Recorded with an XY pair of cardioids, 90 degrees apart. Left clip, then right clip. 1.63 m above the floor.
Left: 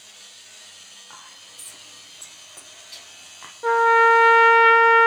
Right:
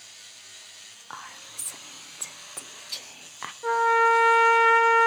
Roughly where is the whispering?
Ahead right.